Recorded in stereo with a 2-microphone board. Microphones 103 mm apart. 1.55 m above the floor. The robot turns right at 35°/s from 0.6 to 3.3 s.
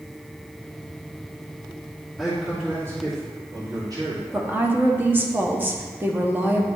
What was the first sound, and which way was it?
A man speaking, straight behind.